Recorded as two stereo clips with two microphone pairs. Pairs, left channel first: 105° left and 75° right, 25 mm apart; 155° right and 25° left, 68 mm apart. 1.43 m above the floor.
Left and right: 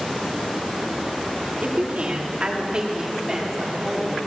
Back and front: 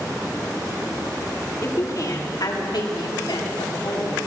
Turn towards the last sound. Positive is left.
turn(degrees=-155)